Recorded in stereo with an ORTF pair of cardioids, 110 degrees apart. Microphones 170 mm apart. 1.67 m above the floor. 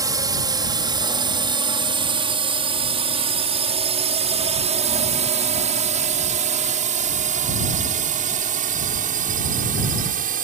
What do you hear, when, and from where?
0.0 s a drone: 20° right; by 10.4 s 55° right